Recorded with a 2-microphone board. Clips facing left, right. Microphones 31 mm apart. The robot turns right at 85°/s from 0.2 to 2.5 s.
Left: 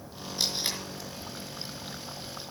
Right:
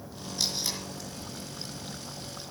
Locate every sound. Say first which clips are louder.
0.4 s tape being pulled: left 1 dB; 10° left (ahead or behind), 5 m; by 0.8 s 50° left (ahead or behind), 5 m